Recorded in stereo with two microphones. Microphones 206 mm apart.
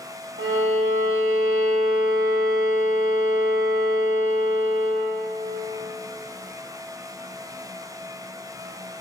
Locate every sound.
0.4 s a violin: 70° right (ahead or behind), 1.3 m